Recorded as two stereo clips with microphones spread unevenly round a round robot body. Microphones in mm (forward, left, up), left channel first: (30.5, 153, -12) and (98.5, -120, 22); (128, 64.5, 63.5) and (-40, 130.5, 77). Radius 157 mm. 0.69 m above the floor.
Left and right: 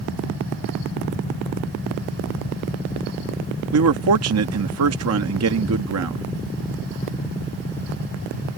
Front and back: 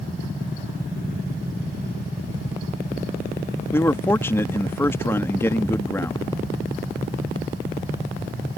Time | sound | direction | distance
3.7 | a man speaking | 90° right | ?